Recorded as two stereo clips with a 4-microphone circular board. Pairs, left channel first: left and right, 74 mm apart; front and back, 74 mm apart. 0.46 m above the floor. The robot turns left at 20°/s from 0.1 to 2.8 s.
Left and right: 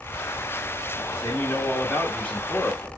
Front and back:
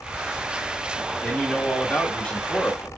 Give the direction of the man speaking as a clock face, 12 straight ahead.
10 o'clock.